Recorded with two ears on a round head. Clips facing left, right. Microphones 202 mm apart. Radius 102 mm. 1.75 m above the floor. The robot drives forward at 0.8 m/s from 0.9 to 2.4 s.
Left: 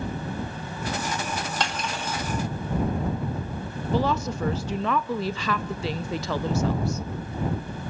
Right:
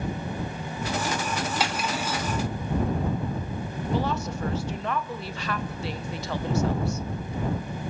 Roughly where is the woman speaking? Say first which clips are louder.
Left 4 dB; left.